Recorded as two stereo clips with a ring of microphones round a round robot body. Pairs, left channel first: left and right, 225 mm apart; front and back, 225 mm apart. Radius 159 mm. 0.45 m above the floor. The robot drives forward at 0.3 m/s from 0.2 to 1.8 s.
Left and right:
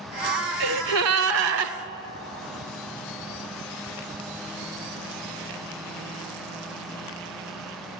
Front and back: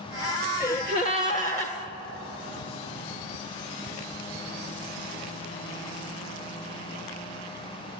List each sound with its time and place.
0.6 s a gasp: 100° right, 0.9 m; by 1.7 s 120° right, 1.0 m